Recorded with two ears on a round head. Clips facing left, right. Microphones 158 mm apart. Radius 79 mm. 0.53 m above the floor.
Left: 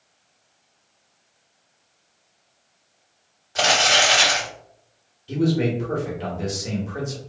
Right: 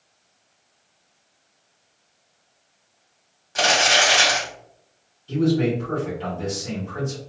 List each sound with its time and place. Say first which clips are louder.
3.5 s crumpling: even; 20° right (ahead or behind), 1.7 m
5.3 s a man speaking: right 1 dB; 15° left (ahead or behind), 1.1 m